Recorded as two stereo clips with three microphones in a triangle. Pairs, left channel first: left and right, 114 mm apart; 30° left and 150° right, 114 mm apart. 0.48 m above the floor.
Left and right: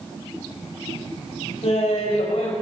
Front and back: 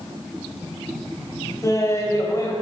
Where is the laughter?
90° left, 2 m.